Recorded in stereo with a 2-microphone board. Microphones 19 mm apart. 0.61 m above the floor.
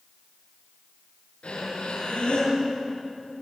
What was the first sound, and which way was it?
Breathing, 70° left (ahead or behind).